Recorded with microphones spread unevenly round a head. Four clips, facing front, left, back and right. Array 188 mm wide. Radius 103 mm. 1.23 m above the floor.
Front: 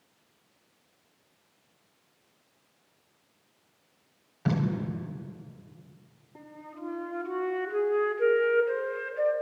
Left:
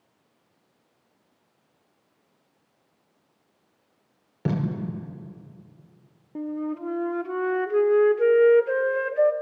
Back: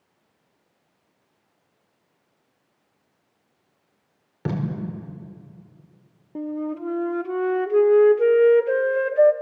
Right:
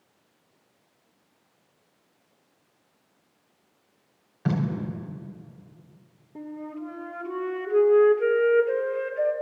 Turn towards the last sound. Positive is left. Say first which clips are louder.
# left 6 dB, back 16 dB
turn(degrees=175)